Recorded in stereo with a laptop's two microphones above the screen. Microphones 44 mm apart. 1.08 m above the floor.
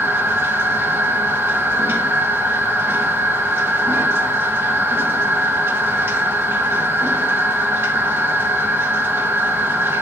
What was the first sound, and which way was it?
A machine running, 60° right (ahead or behind).